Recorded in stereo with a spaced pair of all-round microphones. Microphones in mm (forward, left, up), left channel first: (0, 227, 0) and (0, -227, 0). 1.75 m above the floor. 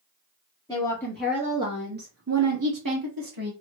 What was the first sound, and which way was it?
A woman speaking, 10° left (ahead or behind).